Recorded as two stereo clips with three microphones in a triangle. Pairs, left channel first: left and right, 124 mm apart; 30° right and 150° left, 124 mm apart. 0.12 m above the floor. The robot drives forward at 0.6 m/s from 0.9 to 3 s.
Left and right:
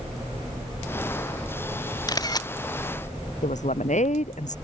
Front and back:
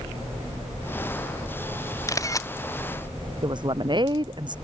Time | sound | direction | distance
2.1 | a camera shutter | 30° left | ?
3.4 | a woman speaking | 100° left | ?